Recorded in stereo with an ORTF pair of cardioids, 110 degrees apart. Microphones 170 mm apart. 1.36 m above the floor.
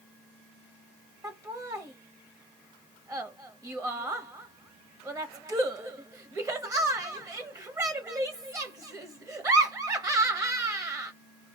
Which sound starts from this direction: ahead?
Laughter, at 1.2 s.